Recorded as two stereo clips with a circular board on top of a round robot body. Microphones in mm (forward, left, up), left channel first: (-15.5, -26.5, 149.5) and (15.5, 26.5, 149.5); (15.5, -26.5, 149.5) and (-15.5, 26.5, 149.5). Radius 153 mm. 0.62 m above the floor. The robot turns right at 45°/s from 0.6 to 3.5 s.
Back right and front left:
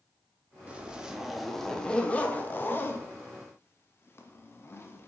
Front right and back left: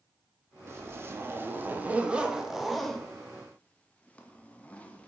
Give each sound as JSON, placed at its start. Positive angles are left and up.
{"t": 0.7, "sound": "a zipper", "azimuth_deg": 120, "distance_m": 0.6}